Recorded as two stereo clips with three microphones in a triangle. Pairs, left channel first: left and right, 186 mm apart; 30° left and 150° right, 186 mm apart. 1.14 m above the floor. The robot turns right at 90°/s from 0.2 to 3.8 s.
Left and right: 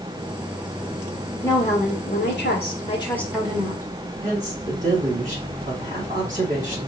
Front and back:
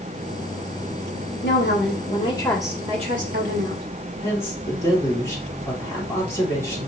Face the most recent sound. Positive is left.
turn(degrees=-45)